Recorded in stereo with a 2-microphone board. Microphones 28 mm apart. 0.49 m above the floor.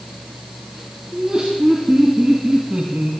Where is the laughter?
30° right (ahead or behind), 4.5 m; by 3.1 s 60° right (ahead or behind), 3 m.